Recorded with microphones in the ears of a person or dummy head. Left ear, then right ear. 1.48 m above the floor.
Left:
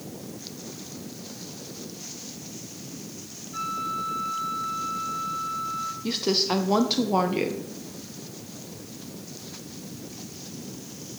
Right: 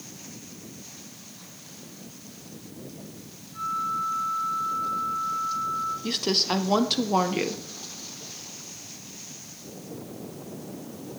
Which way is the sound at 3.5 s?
40° left (ahead or behind).